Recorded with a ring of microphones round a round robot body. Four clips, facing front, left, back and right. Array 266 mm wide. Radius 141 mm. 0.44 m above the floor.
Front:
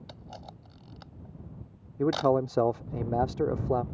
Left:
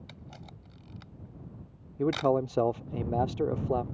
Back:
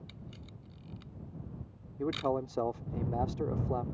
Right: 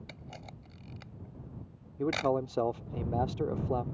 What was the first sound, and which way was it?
A camera shutter, 25° right.